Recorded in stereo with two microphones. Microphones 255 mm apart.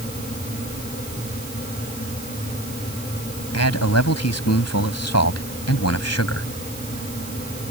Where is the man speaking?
85° left.